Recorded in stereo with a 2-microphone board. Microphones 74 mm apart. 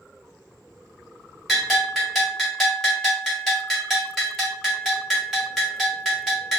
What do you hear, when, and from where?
1.5 s a bell: centre (ahead or behind), 1.7 m